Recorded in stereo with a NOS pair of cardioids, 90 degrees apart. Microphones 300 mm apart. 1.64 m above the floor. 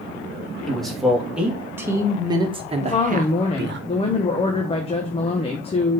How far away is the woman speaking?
About 1.3 m.